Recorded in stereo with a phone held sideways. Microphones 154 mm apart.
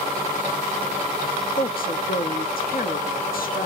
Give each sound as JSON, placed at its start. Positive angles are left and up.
{"t": 1.6, "sound": "a woman speaking", "side_deg": 70, "distance_m": 1.2}